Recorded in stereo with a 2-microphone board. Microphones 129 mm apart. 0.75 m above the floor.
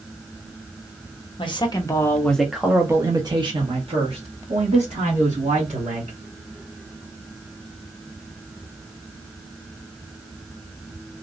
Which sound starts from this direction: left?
A man speaking, at 1.4 s.